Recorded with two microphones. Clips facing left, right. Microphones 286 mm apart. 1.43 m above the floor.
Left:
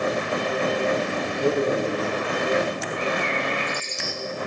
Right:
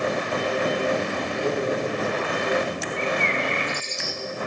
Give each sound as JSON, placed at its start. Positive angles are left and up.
{"t": 1.2, "sound": "a man speaking", "side_deg": 20, "distance_m": 5.0}
{"t": 3.0, "sound": "a bird", "side_deg": -70, "distance_m": 5.5}